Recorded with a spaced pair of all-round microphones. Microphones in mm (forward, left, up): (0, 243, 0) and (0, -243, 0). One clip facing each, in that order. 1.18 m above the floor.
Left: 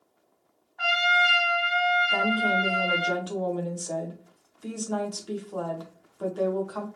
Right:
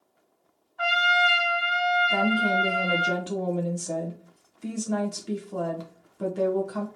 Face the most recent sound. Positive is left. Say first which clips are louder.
# right 3 dB
turn(degrees=-45)  # may be behind; listen again after turning